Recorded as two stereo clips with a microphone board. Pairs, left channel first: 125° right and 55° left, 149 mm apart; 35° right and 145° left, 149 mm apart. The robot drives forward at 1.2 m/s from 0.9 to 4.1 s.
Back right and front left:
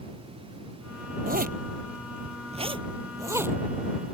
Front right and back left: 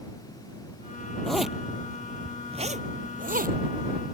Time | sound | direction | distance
1.3 | a zipper | 50° left | ?